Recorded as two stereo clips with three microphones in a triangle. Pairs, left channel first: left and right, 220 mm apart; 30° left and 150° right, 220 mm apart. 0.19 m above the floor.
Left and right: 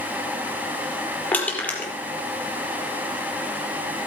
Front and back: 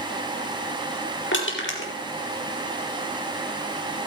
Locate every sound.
1.3 s crushing: 10° left, 4.5 m